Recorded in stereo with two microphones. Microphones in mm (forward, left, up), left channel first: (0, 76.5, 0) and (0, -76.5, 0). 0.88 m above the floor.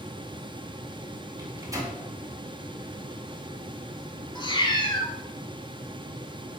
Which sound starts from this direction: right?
A microwave, at 1.4 s.